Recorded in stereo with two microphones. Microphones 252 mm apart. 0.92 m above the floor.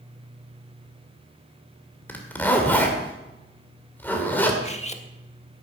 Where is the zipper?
10° left (ahead or behind), 2.5 m.